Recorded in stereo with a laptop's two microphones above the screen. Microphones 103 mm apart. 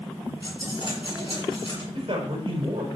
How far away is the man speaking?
About 4 m.